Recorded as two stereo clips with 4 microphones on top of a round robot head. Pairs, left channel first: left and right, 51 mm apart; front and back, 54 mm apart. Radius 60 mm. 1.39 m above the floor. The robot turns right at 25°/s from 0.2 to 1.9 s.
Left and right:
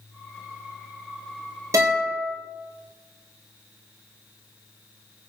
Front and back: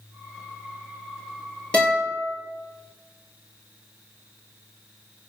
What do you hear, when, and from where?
1.7 s a guitar: 75° right, 4 m; by 2.3 s 70° right, 4 m